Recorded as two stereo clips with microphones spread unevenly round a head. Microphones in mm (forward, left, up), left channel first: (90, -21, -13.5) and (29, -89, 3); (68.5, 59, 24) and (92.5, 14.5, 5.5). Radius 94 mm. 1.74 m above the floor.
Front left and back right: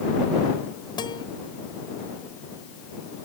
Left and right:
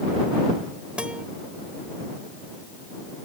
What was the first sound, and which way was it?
A guitar, 10° left.